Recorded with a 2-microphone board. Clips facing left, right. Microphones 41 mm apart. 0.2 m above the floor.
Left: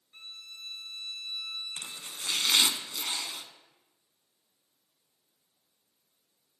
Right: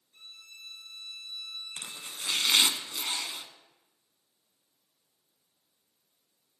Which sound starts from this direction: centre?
Chopping, at 1.8 s.